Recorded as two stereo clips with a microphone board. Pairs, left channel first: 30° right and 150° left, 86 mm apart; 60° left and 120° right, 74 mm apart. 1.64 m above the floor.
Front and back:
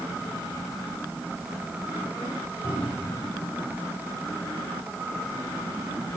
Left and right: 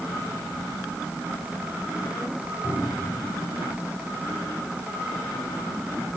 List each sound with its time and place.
2.6 s a cupboard door: 15° left, 7 m